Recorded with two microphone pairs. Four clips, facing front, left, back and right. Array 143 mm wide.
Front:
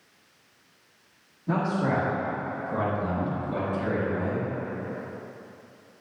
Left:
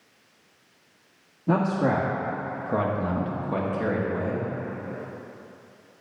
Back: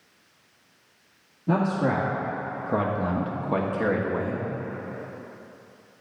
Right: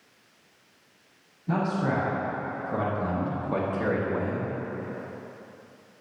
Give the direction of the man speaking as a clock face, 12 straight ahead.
9 o'clock.